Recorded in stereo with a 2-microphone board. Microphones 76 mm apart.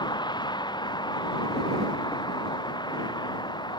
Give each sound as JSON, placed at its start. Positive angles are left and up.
{"t": 0.0, "sound": "a vehicle", "side_deg": 75}